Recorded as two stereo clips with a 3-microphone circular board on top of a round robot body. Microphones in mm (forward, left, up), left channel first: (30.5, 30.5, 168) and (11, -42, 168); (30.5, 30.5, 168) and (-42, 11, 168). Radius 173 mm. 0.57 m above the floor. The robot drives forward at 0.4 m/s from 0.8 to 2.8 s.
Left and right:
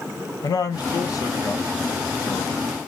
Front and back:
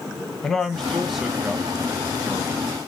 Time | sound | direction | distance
0.4 | a man speaking | 100° left | 1.0 m